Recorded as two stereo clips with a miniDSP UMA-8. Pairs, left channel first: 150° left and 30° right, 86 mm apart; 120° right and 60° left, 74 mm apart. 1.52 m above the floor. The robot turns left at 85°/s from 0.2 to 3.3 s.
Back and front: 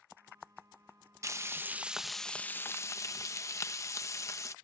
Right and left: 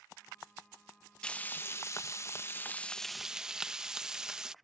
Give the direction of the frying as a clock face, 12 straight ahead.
2 o'clock.